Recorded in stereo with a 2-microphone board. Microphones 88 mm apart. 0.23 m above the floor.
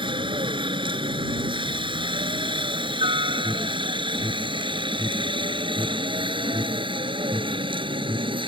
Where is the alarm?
5° left (ahead or behind).